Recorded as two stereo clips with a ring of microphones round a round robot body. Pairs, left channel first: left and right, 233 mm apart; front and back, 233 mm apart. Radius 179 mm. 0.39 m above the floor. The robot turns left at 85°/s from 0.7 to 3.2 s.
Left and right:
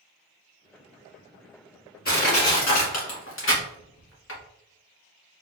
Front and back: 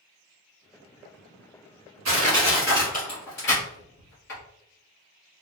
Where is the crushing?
155° left, 1.6 m; by 4.4 s 55° left, 1.6 m.